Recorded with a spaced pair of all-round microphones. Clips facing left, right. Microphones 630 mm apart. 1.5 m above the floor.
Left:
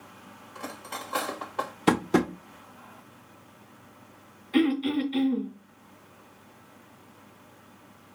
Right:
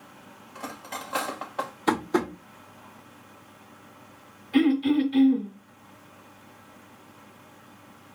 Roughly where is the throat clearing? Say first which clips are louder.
Right 3 dB; right.